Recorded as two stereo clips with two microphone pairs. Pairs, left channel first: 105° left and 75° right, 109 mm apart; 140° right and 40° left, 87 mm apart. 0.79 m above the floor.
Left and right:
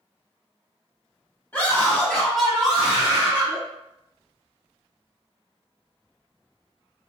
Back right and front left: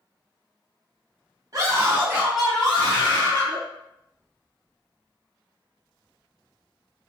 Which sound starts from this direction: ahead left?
A scream, at 1.5 s.